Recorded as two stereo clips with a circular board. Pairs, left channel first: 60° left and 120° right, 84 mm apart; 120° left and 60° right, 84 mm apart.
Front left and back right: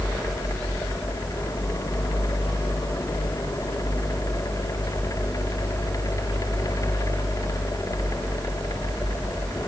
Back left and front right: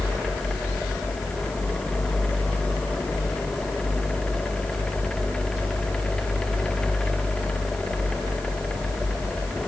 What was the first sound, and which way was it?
Only background noise.